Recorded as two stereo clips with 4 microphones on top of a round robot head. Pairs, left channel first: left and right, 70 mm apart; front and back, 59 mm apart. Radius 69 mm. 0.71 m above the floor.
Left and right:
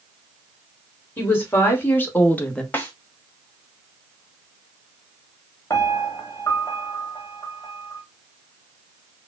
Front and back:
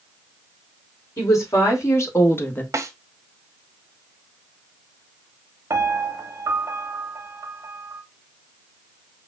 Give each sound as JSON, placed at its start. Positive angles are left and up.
{"t": 1.2, "sound": "a woman speaking", "azimuth_deg": 35, "distance_m": 2.0}
{"t": 2.7, "sound": "a snare drum", "azimuth_deg": 155, "distance_m": 1.0}
{"t": 5.7, "sound": "a piano", "azimuth_deg": 150, "distance_m": 0.6}